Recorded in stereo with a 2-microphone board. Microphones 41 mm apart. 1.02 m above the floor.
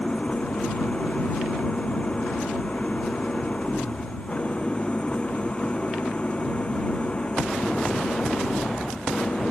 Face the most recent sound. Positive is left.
turn(degrees=25)  # may be behind; listen again after turning